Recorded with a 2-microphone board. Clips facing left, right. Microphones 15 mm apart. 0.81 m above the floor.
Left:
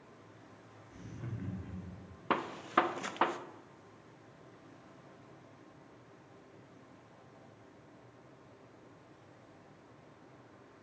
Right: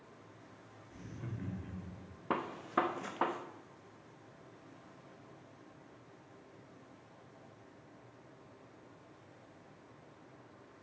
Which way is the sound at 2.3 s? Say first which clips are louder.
Left 3 dB; 55° left (ahead or behind).